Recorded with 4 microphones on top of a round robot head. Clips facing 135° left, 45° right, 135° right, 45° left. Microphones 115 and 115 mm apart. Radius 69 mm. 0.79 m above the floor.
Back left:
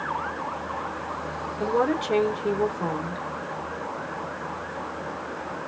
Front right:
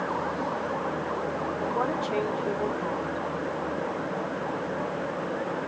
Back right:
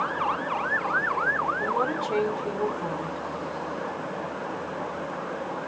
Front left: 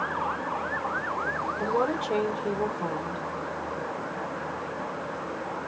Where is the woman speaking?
120° left, 1.8 m.